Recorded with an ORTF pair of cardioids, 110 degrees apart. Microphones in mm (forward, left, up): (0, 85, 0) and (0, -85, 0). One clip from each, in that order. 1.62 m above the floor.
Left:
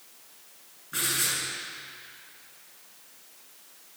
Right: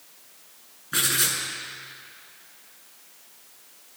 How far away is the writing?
About 5.5 m.